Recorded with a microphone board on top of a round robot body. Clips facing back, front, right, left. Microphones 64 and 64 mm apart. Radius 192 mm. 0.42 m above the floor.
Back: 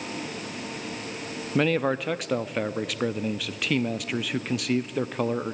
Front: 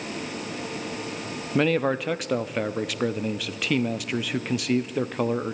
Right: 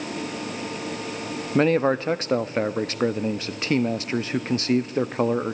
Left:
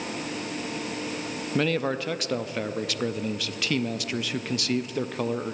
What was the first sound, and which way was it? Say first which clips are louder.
A man speaking: front 1 dB, right 6 dB; 85° right.